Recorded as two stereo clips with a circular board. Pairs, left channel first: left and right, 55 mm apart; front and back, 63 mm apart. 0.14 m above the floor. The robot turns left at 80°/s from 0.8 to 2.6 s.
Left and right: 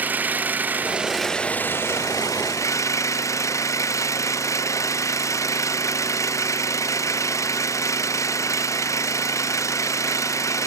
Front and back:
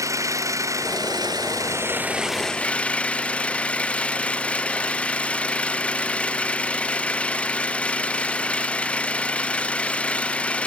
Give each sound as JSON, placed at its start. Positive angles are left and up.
{"t": 0.0, "sound": "an engine running", "azimuth_deg": -145}